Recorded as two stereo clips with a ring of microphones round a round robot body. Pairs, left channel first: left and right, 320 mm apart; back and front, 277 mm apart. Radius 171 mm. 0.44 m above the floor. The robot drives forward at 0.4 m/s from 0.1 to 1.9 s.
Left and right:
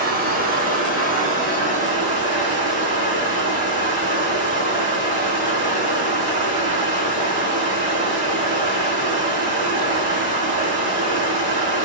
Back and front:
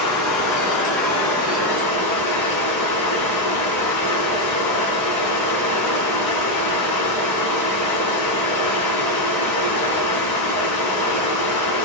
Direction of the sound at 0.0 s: 155° right.